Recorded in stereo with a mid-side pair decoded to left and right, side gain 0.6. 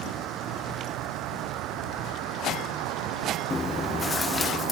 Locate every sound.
0.0 s a vehicle: 65° right; by 4.7 s 75° right
3.5 s chewing: 20° left